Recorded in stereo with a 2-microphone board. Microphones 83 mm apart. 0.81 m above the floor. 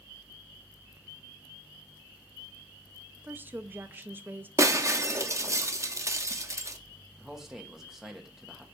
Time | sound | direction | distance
3.2 | a woman speaking | 25° right (ahead or behind) | 0.5 m
4.6 | breaking glass | 35° right (ahead or behind) | 0.6 m
7.2 | a man speaking | 5° right (ahead or behind) | 1.1 m